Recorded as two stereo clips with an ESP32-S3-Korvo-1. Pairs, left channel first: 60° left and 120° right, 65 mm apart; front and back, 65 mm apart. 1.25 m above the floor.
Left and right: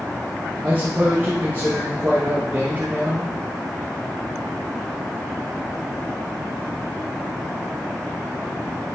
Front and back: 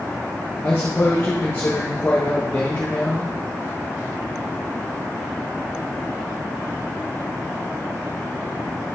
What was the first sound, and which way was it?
A man speaking, 60° right.